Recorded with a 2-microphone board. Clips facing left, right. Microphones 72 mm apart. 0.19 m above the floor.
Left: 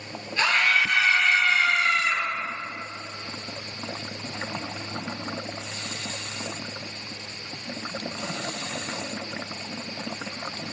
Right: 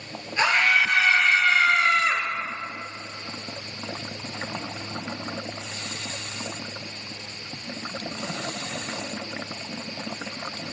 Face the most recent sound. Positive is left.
turn(degrees=-45)  # may be behind; listen again after turning